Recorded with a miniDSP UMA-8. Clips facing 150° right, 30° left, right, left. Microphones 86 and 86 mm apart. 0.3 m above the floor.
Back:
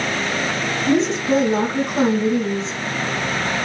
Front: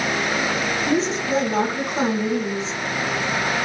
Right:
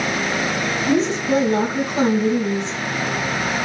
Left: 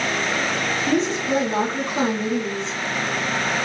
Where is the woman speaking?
115° left, 1.2 m.